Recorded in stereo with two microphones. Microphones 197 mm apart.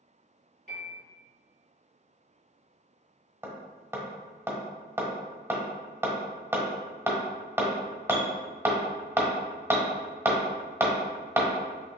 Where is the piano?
45° right (ahead or behind), 1.7 m.